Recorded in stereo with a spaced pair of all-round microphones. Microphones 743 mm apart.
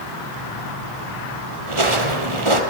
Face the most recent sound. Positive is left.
turn(degrees=-40)  # may be behind; listen again after turning